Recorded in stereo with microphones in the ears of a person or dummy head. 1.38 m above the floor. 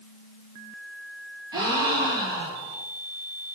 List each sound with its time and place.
1.5 s a gasp: 25° right (ahead or behind), 1.0 m